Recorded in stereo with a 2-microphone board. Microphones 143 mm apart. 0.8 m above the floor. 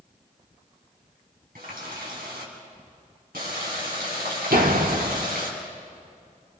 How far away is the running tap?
About 5 m.